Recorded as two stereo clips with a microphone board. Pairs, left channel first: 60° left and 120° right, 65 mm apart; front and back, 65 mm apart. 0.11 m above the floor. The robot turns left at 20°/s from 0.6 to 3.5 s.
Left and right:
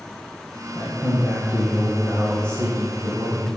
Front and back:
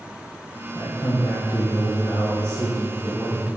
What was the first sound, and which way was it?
A man speaking, 30° right.